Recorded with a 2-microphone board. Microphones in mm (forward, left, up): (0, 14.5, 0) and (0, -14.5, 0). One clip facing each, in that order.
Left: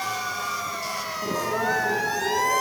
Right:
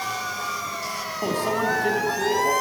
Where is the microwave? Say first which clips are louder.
Right 2 dB; 60° right (ahead or behind), 5.5 m.